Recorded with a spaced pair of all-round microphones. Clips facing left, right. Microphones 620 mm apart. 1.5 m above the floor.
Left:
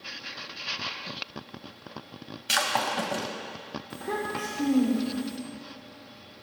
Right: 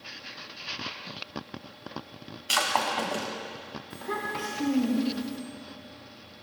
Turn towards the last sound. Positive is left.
turn(degrees=70)  # may be behind; listen again after turning